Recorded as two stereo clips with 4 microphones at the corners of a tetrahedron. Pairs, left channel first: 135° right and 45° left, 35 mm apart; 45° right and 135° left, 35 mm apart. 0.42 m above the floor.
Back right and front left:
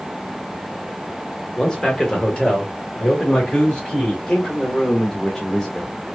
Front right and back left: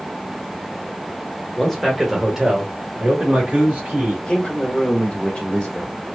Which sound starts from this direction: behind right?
A man speaking, at 1.6 s.